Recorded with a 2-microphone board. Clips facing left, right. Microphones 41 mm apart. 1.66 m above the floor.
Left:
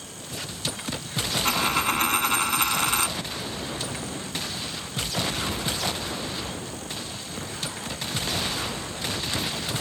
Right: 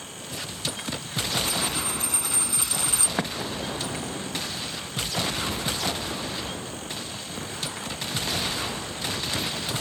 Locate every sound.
1.4 s a dropped coin: 60° left (ahead or behind)
3.2 s an explosion: 85° right